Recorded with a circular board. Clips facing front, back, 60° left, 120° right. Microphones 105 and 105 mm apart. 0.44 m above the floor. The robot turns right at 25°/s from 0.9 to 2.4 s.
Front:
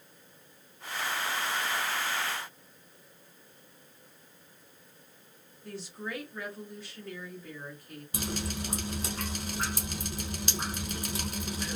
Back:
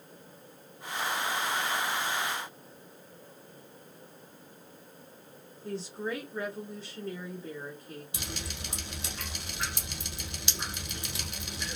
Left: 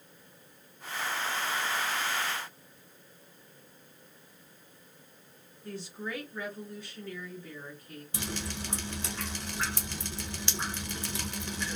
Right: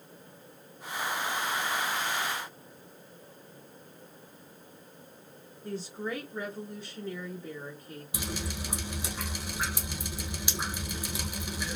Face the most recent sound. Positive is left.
turn(degrees=-40)